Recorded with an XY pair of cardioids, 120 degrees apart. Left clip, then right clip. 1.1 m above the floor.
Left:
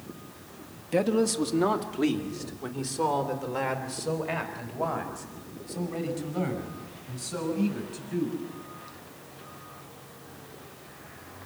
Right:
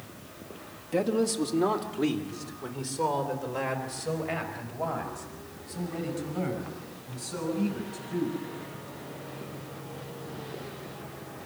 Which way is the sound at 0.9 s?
30° left.